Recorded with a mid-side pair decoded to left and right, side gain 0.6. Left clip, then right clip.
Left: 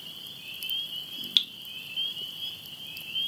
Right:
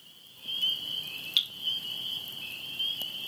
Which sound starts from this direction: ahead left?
Dripping, at 1.4 s.